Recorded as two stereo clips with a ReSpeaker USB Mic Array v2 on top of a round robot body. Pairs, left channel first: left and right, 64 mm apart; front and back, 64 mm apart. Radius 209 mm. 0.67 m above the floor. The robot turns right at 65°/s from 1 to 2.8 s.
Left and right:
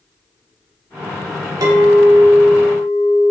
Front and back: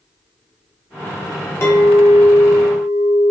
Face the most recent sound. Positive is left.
turn(degrees=25)